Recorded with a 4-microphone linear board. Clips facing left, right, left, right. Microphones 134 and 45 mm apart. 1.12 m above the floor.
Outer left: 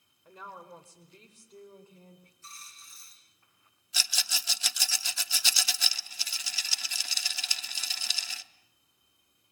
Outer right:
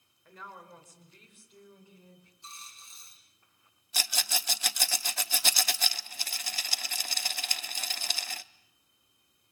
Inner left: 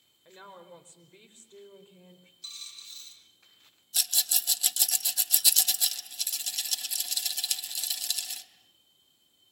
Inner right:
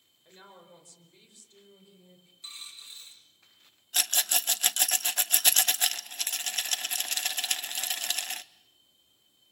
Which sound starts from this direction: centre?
A woman speaking, at 0.2 s.